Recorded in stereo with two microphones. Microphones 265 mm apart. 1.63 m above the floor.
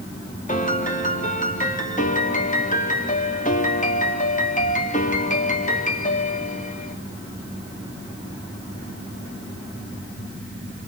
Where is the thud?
No thud in this recording.